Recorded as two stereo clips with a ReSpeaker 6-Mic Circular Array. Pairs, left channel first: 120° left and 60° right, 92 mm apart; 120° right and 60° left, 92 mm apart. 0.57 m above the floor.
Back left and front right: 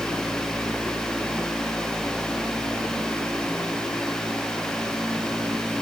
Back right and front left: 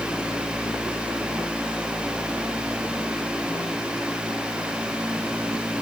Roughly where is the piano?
I don't hear a piano.